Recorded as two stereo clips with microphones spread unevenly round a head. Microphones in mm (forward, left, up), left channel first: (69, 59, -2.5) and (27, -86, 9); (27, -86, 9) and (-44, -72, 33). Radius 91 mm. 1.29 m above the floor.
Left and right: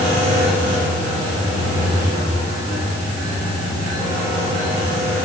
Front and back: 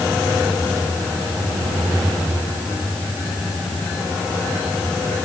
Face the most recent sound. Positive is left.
No sound to turn to.